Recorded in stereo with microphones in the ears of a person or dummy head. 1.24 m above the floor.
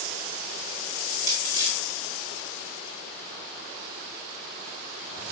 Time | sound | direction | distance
0.9 | crushing | 20° right (ahead or behind) | 1.9 m